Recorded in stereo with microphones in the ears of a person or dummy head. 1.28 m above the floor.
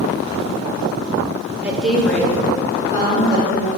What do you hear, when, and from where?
1.6 s a woman speaking: 10° right (ahead or behind), 0.9 m; by 3.7 s 20° left (ahead or behind), 3 m